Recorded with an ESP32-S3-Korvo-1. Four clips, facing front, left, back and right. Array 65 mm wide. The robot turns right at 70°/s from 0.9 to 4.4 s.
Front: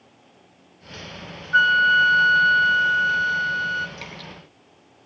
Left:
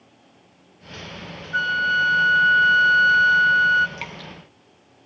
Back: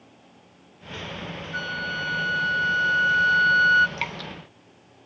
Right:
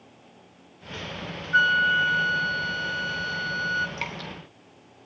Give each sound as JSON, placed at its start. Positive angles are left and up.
{"t": 1.5, "sound": "a flute", "azimuth_deg": -15, "distance_m": 0.7}
{"t": 4.0, "sound": "dripping", "azimuth_deg": -170, "distance_m": 2.5}